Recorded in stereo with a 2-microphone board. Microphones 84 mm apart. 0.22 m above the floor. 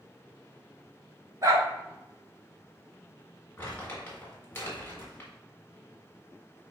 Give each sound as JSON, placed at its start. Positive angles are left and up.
{"t": 1.4, "sound": "a dog barking", "side_deg": -40, "distance_m": 1.0}
{"t": 3.6, "sound": "crumpling", "side_deg": 25, "distance_m": 1.8}